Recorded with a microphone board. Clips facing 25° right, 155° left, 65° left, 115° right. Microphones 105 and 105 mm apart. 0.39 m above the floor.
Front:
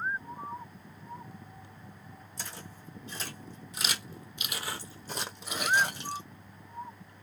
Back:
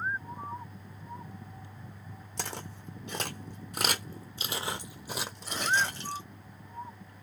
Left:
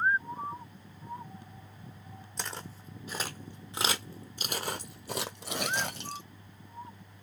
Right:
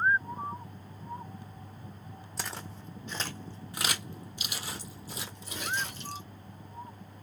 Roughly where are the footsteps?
Behind.